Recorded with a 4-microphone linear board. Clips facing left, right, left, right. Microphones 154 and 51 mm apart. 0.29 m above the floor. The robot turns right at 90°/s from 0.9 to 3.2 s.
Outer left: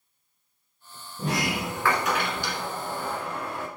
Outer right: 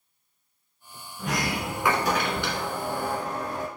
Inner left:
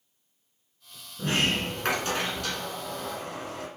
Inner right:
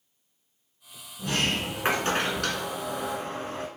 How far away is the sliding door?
About 1.5 m.